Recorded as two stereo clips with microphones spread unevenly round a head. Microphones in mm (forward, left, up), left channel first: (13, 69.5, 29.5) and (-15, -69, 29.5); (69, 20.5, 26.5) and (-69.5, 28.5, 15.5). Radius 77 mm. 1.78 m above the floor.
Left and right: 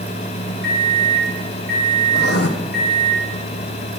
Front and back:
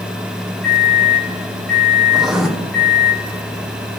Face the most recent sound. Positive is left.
turn(degrees=90)